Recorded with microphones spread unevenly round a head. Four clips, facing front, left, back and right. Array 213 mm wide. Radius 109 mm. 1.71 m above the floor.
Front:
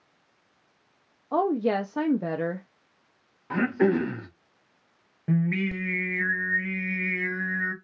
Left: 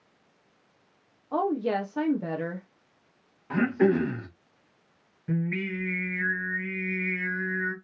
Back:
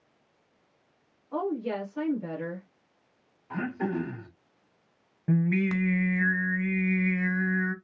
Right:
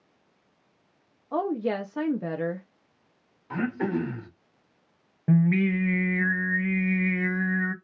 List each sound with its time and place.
1.3 s a woman speaking: straight ahead, 0.8 m
3.5 s throat clearing: 25° left, 2 m
5.3 s singing: 85° right, 1.3 m